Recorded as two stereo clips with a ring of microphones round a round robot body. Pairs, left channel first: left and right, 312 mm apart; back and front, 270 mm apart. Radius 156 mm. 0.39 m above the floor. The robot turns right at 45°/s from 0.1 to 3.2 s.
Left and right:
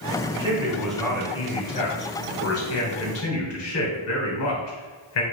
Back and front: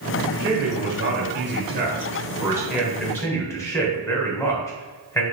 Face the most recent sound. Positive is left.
turn(degrees=105)